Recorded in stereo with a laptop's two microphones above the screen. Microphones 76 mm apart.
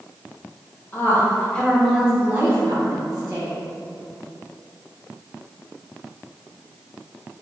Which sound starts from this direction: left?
A woman speaking, at 0.9 s.